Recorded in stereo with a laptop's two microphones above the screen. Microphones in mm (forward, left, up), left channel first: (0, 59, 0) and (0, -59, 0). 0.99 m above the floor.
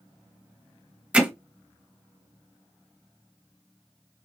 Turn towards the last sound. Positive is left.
turn(degrees=-10)  # may be behind; listen again after turning